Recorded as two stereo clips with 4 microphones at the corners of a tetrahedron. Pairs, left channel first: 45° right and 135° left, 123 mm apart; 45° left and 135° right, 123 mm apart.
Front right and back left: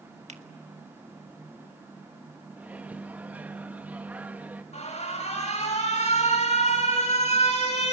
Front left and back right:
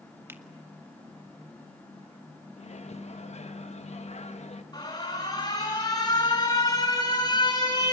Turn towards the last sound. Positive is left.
turn(degrees=-10)